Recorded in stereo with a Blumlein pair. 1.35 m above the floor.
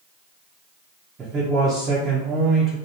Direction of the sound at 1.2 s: 25° right.